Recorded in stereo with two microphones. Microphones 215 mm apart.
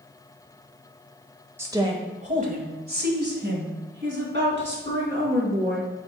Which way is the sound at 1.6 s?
10° right (ahead or behind).